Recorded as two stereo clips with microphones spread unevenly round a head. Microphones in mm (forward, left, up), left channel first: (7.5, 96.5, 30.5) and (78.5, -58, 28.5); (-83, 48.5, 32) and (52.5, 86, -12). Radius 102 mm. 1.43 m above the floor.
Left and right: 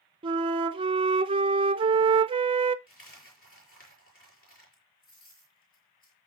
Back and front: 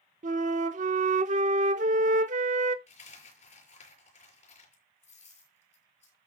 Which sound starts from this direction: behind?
A dropped coin, at 2.9 s.